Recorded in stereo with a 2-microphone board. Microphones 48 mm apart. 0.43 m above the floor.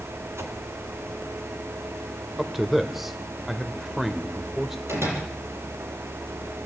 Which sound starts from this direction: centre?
A man speaking, at 2.4 s.